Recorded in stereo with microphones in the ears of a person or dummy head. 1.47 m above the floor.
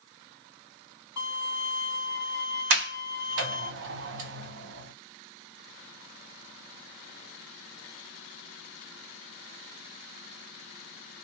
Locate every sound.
1.2 s a violin: 10° right (ahead or behind), 1.2 m
2.7 s a sliding door: 55° right (ahead or behind), 0.6 m